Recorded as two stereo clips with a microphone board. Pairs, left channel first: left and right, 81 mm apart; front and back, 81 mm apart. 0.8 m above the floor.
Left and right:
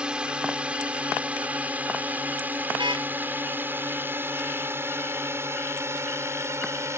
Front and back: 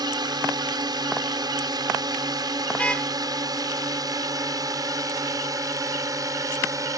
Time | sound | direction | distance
0.0 | a drone | 165° right | ?
2.7 | a car horn | 75° right | ?